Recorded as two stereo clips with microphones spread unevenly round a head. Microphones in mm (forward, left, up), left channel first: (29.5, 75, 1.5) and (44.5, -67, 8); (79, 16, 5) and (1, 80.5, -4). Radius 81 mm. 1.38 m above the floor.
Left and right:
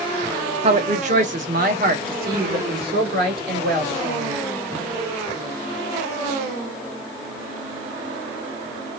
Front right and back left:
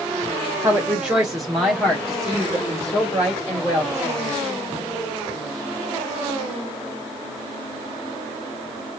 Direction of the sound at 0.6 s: 140° right.